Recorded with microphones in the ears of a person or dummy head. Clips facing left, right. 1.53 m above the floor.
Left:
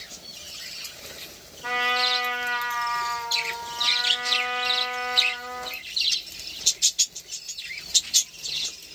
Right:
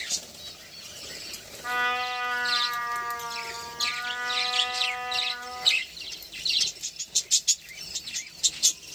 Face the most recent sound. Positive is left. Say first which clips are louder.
# left 3 dB
turn(degrees=45)  # may be behind; listen again after turning